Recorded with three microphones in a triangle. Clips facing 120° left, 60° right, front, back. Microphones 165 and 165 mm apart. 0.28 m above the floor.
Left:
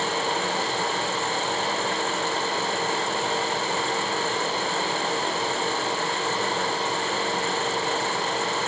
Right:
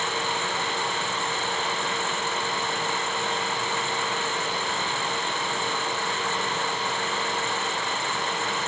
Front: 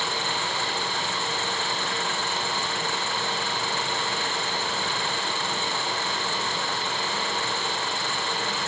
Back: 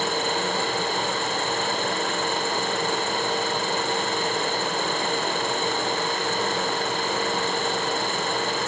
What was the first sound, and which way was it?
Only background noise.